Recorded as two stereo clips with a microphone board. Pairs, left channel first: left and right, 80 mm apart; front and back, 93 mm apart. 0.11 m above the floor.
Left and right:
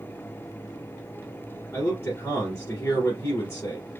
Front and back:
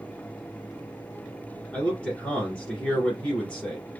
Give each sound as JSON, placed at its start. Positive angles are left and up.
{"t": 1.7, "sound": "a man speaking", "azimuth_deg": 70, "distance_m": 1.9}